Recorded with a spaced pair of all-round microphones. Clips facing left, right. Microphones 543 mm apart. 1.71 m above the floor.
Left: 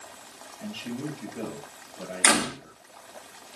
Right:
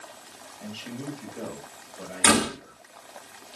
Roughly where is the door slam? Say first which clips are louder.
Right 4 dB; right.